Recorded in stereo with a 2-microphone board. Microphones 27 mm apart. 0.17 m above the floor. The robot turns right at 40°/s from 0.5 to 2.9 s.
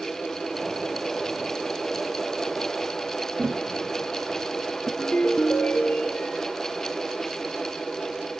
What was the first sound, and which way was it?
Tapping, 50° right (ahead or behind).